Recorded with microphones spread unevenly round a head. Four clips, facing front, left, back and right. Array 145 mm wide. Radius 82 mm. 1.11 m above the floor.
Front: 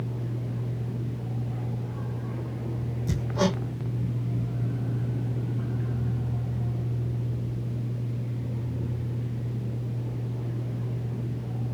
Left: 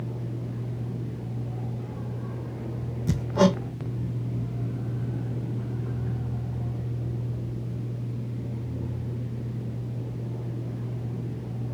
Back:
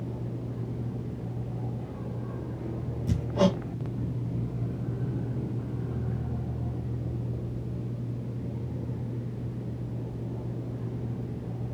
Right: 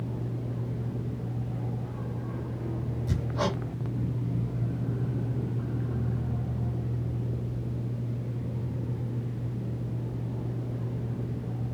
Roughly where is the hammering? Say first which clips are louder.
Left 9 dB, back 2 dB; left.